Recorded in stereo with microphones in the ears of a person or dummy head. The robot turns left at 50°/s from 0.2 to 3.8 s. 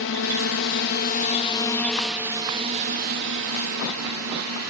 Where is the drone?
60° left (ahead or behind); by 4.7 s 70° right (ahead or behind).